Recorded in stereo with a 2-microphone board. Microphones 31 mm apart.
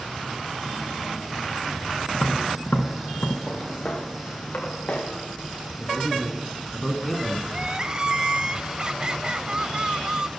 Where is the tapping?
70° left (ahead or behind), 1.5 m.